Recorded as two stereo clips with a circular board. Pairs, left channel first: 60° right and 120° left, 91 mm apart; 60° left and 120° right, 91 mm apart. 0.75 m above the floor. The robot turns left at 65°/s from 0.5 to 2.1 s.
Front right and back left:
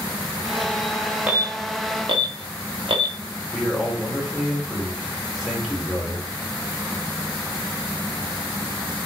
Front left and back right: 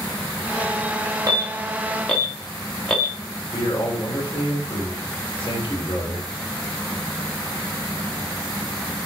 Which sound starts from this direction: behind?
An alarm, at 1.3 s.